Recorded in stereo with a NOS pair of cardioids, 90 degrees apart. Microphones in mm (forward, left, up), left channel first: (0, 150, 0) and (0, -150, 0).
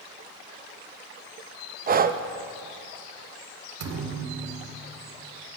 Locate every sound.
1.9 s breathing: 30° right, 0.6 m
3.8 s a thud: 55° right, 1.5 m